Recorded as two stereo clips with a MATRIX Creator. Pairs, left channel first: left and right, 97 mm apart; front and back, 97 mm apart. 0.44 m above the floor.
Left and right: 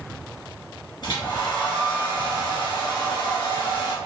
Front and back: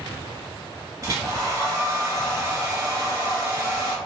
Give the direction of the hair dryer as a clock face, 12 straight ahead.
8 o'clock.